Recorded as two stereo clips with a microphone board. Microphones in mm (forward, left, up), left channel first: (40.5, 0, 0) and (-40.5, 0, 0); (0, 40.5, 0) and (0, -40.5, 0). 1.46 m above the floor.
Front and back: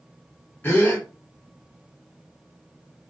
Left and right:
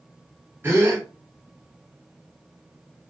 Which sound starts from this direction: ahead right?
A gasp, at 0.6 s.